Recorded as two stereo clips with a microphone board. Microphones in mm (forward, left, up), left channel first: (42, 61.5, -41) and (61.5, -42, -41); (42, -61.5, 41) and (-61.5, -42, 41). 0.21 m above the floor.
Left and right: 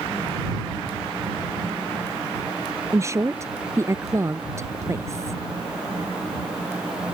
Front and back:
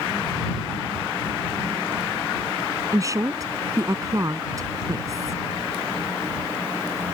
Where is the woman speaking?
135° right.